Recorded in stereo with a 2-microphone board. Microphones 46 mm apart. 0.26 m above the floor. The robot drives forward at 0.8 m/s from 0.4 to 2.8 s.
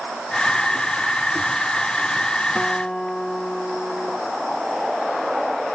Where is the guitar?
15° left (ahead or behind); by 4.2 s 10° left (ahead or behind).